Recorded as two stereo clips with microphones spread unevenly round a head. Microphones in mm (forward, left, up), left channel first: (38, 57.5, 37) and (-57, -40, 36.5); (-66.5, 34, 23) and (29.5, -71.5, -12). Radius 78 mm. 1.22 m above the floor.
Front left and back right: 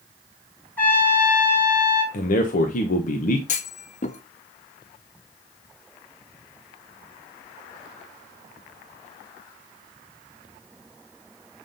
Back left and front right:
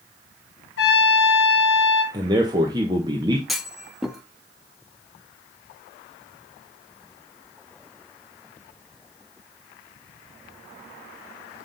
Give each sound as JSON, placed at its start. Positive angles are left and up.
{"t": 0.8, "sound": "a trumpet", "azimuth_deg": 125, "distance_m": 2.0}
{"t": 2.1, "sound": "a man speaking", "azimuth_deg": 15, "distance_m": 1.0}
{"t": 3.5, "sound": "a clunk", "azimuth_deg": 55, "distance_m": 0.7}